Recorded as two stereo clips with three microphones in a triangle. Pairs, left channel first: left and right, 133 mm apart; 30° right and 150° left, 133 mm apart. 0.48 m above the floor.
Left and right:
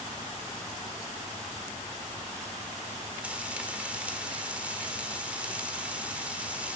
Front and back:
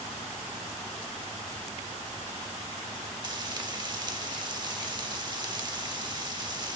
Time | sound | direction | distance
3.2 | frying | 165° right | 1.0 m